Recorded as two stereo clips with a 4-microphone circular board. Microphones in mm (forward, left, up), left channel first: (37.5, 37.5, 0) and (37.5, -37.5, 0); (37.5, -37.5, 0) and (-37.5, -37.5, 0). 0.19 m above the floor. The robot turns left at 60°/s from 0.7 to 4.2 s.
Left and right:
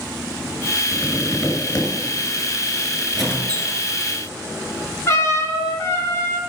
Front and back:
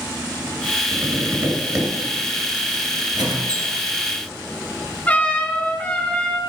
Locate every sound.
0.9 s tapping: 160° right, 2 m; by 1.9 s 140° left, 2 m
3.1 s a squeak: 175° right, 2 m; by 3.8 s 145° left, 2 m
5.1 s a trumpet: 60° left, 1.8 m